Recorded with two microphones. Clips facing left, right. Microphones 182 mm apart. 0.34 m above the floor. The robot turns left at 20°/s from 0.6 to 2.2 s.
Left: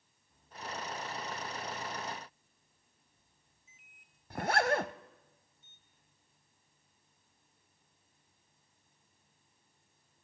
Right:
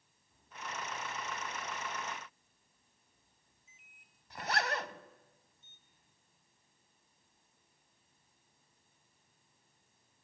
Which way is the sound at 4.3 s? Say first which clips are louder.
Left 7 dB; 50° left (ahead or behind).